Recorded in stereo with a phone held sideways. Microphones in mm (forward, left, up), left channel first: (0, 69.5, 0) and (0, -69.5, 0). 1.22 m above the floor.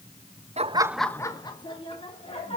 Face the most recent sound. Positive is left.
turn(degrees=45)  # may be behind; listen again after turning